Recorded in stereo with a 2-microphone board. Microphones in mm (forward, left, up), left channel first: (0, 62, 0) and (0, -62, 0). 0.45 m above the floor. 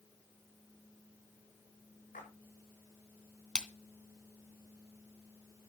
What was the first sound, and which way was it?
A splash, 85° left.